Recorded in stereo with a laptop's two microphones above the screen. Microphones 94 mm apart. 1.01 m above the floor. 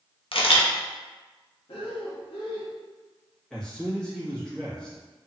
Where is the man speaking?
5° left (ahead or behind), 1.5 m.